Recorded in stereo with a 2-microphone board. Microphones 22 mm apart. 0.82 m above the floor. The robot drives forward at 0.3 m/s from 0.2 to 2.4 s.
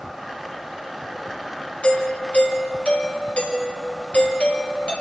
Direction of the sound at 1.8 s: 60° left (ahead or behind).